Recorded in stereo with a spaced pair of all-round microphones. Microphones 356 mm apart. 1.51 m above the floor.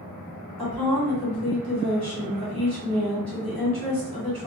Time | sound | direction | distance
0.6 | a woman speaking | 85° right | 1.3 m